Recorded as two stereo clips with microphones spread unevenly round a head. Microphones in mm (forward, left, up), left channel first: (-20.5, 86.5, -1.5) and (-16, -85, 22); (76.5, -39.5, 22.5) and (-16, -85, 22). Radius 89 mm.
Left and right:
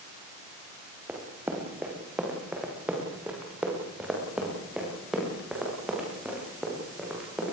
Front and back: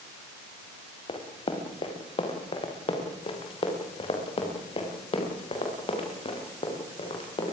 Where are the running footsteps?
5° right, 6 m; by 7.5 s straight ahead, 11 m.